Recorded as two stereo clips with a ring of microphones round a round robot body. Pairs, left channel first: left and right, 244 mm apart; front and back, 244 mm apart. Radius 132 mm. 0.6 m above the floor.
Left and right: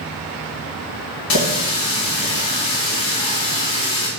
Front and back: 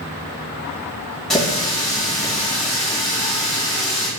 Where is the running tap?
90° left, 2 m.